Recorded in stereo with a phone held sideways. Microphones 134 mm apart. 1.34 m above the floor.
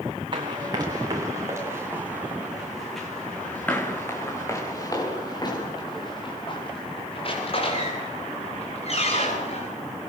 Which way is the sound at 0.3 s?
35° right (ahead or behind).